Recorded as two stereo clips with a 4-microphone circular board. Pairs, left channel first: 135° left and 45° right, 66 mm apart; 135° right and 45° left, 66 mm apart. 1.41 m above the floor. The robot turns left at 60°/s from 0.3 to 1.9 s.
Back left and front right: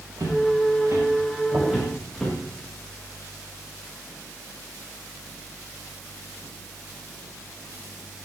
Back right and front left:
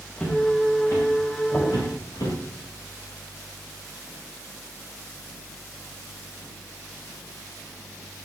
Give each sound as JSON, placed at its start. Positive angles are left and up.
{"t": 0.2, "sound": "footsteps", "azimuth_deg": -55, "distance_m": 7.5}
{"t": 1.5, "sound": "knocking", "azimuth_deg": -65, "distance_m": 7.5}